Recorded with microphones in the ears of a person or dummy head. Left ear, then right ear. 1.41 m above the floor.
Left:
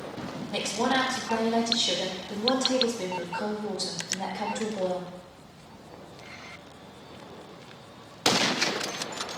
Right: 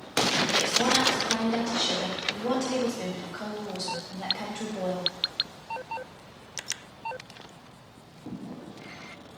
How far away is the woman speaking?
About 0.9 m.